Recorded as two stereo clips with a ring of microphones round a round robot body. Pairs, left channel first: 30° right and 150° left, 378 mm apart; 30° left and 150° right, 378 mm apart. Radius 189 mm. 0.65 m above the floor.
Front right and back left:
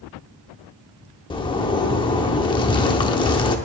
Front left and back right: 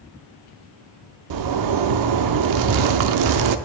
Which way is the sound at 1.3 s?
110° right.